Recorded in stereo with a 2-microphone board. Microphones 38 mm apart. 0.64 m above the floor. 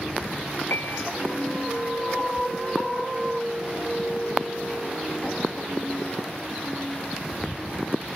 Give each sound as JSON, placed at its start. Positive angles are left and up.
{"t": 0.7, "sound": "a piano", "side_deg": 85}